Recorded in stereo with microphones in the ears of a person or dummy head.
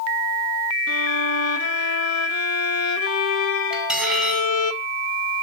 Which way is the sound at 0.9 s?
80° left.